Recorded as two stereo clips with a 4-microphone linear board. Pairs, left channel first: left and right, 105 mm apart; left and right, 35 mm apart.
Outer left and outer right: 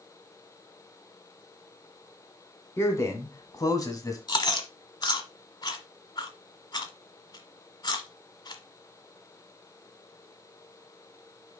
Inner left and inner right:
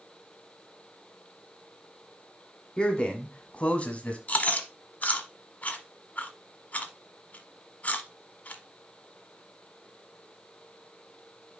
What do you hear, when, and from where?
2.8 s a man speaking: 25° left (ahead or behind), 1.9 m; by 4.2 s 35° left (ahead or behind), 1.5 m
4.3 s chewing: 40° left (ahead or behind), 1.2 m